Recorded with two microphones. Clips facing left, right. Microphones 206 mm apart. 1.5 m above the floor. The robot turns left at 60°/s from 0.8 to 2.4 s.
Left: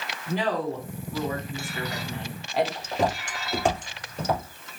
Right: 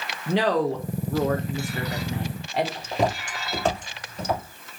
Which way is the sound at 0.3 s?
85° right.